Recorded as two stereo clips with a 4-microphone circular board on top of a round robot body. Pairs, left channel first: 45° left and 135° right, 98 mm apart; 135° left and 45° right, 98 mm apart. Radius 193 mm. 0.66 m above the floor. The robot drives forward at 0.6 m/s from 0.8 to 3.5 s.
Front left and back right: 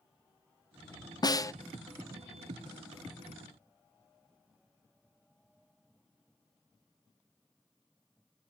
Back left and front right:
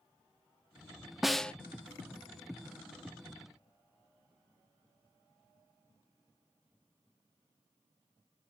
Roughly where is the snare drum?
Ahead left.